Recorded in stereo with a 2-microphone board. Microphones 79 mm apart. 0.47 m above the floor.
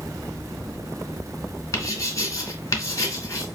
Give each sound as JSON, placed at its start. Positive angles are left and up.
{"t": 1.7, "sound": "writing", "side_deg": 45, "distance_m": 2.0}